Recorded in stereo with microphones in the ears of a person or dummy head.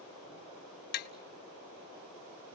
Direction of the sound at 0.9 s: 50° left (ahead or behind).